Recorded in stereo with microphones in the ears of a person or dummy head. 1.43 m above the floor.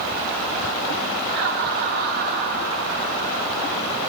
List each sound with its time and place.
1.3 s laughter: 45° right (ahead or behind), 1.7 m